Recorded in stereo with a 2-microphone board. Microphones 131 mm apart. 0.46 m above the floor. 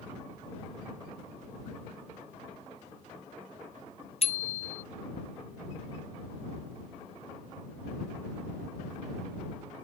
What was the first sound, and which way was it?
A bicycle bell, 50° left (ahead or behind).